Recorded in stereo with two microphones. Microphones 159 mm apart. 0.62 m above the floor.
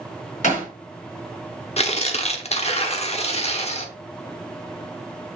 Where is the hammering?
50° left (ahead or behind), 3.5 m.